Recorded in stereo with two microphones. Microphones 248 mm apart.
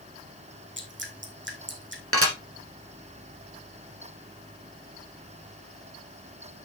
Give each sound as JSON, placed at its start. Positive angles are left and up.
{"t": 0.8, "sound": "dripping", "side_deg": -50, "distance_m": 2.5}
{"t": 2.1, "sound": "dishes clattering", "side_deg": -65, "distance_m": 2.5}